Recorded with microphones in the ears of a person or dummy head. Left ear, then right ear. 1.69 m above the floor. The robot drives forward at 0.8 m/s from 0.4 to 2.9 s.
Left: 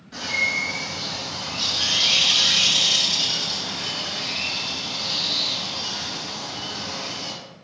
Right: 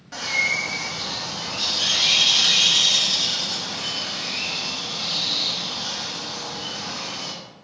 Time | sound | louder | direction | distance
0.1 | a bird | right 1 dB | 35° right (ahead or behind) | 0.9 m